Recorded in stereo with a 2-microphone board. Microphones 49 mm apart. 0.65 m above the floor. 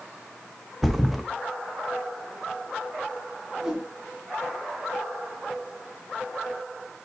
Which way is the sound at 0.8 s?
Centre (ahead or behind).